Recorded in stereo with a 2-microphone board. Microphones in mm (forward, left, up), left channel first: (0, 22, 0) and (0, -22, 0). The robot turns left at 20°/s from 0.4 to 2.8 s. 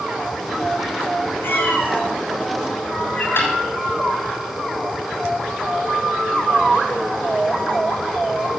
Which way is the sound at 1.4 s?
60° left (ahead or behind).